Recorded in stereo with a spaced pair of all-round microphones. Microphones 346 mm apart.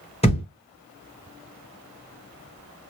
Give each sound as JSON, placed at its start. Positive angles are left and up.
{"t": 0.2, "sound": "a thud", "side_deg": 15, "distance_m": 1.0}